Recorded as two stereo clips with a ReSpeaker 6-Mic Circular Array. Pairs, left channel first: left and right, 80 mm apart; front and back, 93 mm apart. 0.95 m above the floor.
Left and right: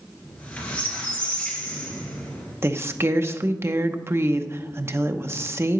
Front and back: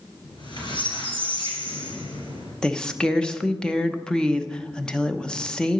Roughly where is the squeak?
Ahead.